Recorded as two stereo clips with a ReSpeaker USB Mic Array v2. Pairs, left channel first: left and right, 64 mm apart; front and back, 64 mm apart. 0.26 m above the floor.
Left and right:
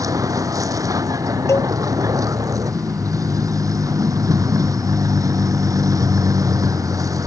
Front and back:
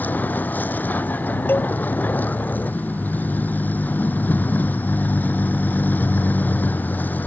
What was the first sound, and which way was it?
A vehicle, 65° right.